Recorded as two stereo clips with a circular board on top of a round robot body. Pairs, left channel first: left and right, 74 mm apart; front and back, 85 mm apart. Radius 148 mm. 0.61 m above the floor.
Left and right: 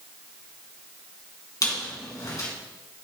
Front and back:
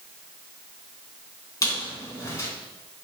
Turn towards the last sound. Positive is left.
turn(degrees=50)